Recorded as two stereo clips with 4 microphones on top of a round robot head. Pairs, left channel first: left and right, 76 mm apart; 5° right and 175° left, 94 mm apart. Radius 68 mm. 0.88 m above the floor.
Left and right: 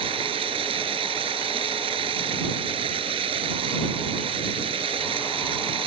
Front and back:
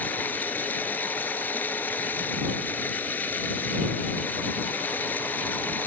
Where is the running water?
80° right.